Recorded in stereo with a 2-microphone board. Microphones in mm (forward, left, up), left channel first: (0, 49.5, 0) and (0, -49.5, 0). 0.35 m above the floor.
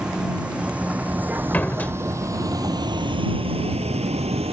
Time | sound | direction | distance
0.0 | a vehicle | 5° right (ahead or behind) | ?
1.5 | a door slam | 15° left (ahead or behind) | ?